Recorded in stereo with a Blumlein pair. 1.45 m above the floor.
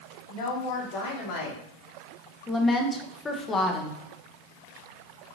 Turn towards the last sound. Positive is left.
turn(degrees=15)